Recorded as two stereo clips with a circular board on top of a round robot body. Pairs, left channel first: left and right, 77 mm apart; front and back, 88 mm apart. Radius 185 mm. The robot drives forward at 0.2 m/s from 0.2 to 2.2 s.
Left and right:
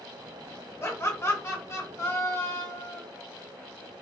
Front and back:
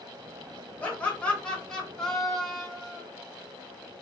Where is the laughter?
65° left, 1.4 m; by 3.0 s 85° left, 1.3 m.